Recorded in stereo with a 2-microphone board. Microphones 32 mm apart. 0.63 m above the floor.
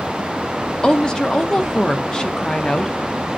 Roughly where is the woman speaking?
Left.